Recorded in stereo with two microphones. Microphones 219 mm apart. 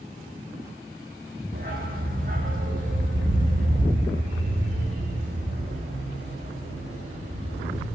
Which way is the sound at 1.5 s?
40° right (ahead or behind).